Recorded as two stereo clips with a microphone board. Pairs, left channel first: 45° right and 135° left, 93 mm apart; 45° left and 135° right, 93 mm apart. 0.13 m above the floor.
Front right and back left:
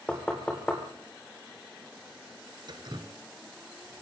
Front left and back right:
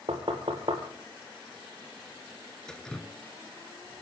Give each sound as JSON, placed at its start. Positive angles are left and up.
{"t": 0.1, "sound": "knocking", "azimuth_deg": -125, "distance_m": 3.0}
{"t": 2.7, "sound": "dripping", "azimuth_deg": 125, "distance_m": 1.2}